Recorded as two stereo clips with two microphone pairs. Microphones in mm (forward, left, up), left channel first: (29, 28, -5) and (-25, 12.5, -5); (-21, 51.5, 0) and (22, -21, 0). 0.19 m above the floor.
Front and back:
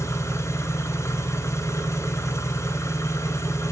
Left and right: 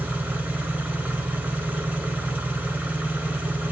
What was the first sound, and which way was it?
An engine running, 10° left.